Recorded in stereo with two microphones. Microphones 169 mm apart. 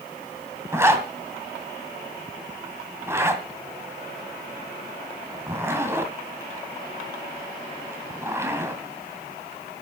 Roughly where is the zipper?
Centre.